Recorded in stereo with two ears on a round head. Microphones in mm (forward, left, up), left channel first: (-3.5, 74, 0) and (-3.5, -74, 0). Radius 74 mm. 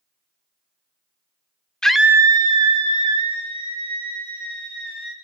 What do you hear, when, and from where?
1.8 s a scream: 5° left (ahead or behind), 0.9 m; by 5.1 s 35° right (ahead or behind), 5 m